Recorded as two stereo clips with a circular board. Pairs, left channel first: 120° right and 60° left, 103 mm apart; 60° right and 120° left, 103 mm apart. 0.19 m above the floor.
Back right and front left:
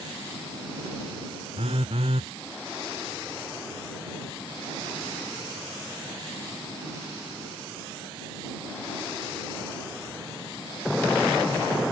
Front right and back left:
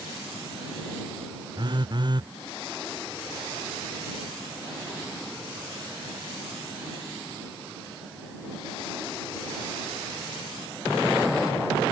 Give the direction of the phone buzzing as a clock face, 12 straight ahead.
9 o'clock.